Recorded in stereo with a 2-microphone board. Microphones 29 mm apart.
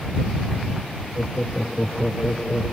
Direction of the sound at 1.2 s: 45° left (ahead or behind).